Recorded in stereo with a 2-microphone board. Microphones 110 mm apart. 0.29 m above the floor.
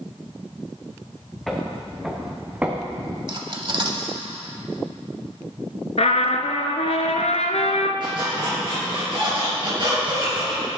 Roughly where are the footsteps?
Centre.